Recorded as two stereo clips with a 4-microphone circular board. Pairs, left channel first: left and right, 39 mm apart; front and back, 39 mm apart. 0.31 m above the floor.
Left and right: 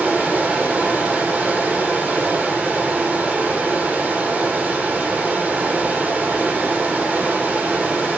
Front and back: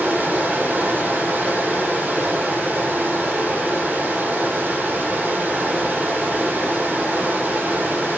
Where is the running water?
130° right, 6.5 m.